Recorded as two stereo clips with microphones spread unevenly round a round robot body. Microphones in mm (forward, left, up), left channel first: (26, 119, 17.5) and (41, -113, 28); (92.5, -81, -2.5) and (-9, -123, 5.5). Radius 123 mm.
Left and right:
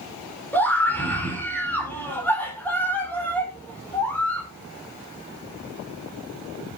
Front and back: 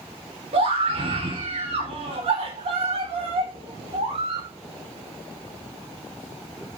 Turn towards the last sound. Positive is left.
turn(degrees=175)